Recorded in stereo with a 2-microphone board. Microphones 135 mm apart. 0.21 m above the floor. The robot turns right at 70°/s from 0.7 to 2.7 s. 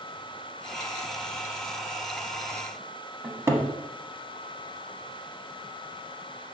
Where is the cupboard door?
20° right (ahead or behind), 0.7 m.